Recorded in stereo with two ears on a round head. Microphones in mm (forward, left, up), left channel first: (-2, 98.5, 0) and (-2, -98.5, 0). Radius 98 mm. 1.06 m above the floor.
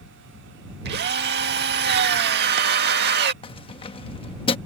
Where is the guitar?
I don't hear a guitar.